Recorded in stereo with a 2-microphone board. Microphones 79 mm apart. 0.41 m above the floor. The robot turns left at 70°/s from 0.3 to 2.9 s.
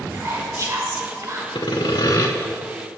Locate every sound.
0.1 s whispering: 45° right, 1.1 m; by 1.4 s 125° right, 1.1 m
1.6 s sawing: 100° left, 0.6 m; by 2.3 s 45° left, 0.6 m